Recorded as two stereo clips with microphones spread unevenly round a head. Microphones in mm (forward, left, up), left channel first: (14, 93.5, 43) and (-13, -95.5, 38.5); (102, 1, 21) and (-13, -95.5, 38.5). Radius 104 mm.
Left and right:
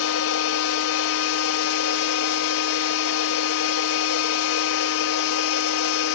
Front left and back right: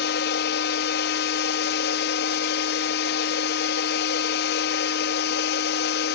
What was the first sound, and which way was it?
A machine running, 65° left.